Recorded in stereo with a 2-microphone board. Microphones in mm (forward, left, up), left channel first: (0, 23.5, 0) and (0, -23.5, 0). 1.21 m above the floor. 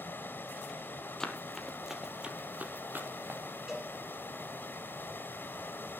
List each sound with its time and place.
0.0 s running water: 50° left (ahead or behind), 2.5 m
1.2 s running footsteps: 10° left (ahead or behind), 1.8 m; by 3.4 s 55° right (ahead or behind), 2 m
3.7 s a cowbell: 15° right (ahead or behind), 6.5 m